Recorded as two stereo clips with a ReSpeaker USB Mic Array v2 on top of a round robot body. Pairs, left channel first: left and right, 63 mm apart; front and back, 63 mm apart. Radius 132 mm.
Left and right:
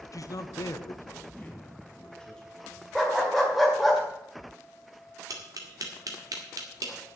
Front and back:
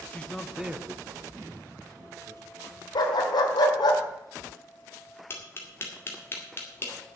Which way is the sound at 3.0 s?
Straight ahead.